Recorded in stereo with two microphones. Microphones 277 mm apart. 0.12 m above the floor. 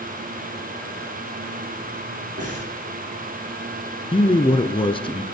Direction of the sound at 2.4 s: 60° right (ahead or behind).